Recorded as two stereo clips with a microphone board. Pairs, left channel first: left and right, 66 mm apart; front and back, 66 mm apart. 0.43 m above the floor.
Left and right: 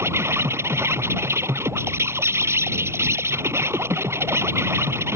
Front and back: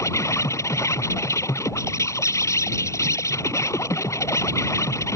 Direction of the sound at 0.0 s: 40° right.